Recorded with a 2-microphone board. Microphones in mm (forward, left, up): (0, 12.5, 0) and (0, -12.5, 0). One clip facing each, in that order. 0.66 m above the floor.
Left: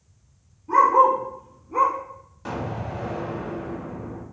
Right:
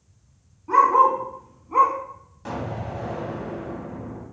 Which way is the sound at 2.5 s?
5° left (ahead or behind).